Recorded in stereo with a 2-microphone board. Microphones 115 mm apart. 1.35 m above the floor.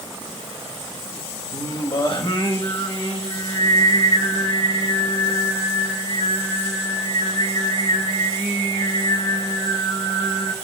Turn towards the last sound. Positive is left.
turn(degrees=45)  # may be behind; listen again after turning